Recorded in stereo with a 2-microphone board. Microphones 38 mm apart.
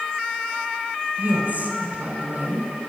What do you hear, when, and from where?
1.2 s a woman speaking: 50° right (ahead or behind), 1.9 m